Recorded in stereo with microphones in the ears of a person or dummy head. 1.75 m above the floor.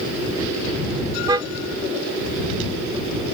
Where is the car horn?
25° right (ahead or behind).